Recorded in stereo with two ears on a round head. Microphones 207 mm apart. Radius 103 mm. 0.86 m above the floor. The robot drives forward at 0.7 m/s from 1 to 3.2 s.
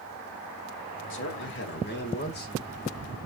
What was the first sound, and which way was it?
A man speaking, 55° left (ahead or behind).